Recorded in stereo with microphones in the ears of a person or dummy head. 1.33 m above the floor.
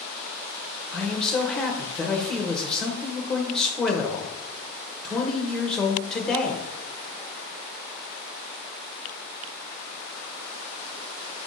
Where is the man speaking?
10° left (ahead or behind), 0.7 m.